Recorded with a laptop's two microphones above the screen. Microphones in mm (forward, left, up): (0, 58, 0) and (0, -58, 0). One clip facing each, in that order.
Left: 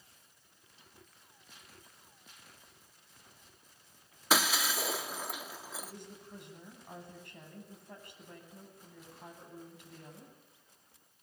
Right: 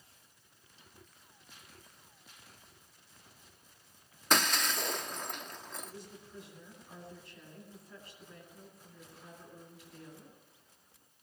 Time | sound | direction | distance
4.3 | breaking glass | 5° left (ahead or behind) | 0.9 m
5.8 | a woman speaking | 60° left (ahead or behind) | 9.5 m